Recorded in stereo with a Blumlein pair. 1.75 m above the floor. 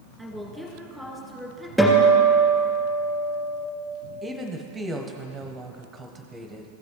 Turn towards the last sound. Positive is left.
turn(degrees=-10)